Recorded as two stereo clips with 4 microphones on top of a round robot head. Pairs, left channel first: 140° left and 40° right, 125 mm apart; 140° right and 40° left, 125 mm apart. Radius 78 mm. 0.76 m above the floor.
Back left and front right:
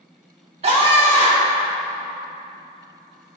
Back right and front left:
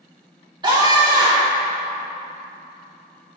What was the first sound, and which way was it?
A scream, 10° right.